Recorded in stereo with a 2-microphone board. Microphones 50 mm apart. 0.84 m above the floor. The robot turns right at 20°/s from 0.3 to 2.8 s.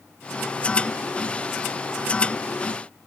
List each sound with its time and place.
Only background noise.